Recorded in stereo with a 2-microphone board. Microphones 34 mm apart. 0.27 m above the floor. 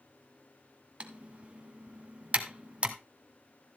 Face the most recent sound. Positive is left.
turn(degrees=-35)  # may be behind; listen again after turning